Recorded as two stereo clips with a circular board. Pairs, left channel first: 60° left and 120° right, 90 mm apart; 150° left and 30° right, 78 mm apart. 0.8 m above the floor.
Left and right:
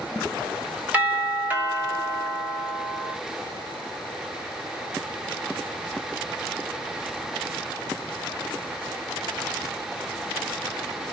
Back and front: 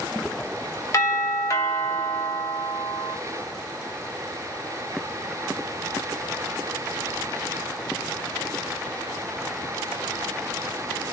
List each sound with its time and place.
0.9 s a doorbell: straight behind, 1.2 m